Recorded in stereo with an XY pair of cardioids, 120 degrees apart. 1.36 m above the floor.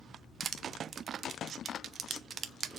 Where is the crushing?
45° right, 0.6 m.